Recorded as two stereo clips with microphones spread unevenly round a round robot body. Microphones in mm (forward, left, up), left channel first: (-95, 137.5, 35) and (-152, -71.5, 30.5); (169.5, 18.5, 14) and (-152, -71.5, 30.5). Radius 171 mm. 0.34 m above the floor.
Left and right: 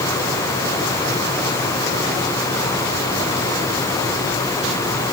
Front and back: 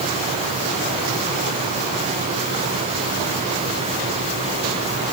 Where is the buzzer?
I don't hear a buzzer.